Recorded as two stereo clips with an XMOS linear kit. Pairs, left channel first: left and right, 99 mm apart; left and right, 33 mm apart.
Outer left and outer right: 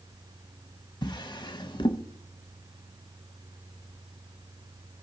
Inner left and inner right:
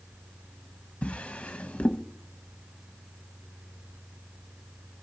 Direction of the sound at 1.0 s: 55° left (ahead or behind).